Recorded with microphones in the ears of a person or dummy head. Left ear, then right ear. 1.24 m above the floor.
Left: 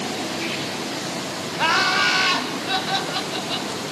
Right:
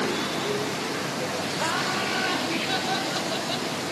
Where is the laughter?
70° left (ahead or behind), 1.4 m; by 3.7 s 5° left (ahead or behind), 3.5 m.